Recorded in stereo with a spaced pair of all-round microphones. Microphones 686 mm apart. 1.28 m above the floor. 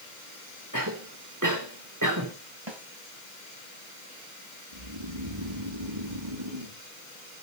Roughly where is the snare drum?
Right.